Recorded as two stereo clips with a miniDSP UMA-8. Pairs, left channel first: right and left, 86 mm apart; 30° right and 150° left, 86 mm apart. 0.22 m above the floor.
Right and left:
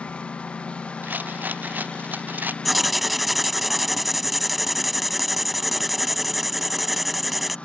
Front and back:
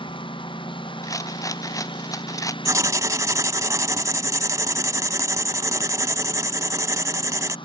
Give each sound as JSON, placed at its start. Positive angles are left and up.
{"t": 0.0, "sound": "a lawn mower", "azimuth_deg": -15}
{"t": 1.0, "sound": "a rattle", "azimuth_deg": 20}
{"t": 2.6, "sound": "writing", "azimuth_deg": 180}